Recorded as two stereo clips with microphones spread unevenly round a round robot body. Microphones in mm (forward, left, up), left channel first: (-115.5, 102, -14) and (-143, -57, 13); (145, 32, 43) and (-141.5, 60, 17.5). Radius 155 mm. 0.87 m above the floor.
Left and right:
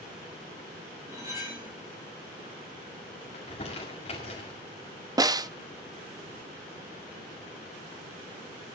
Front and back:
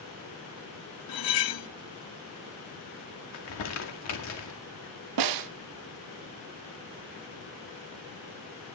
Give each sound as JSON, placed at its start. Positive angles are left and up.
{"t": 1.1, "sound": "cutlery clinking", "azimuth_deg": -20, "distance_m": 0.7}
{"t": 3.3, "sound": "crumpling", "azimuth_deg": 20, "distance_m": 2.0}
{"t": 5.2, "sound": "a snare drum", "azimuth_deg": -170, "distance_m": 0.6}